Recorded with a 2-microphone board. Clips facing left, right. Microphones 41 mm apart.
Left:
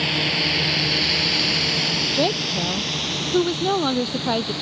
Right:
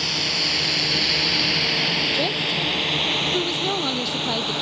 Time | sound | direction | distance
0.0 | a drone | 20° left (ahead or behind) | ?
2.1 | a woman speaking | 15° left (ahead or behind) | ?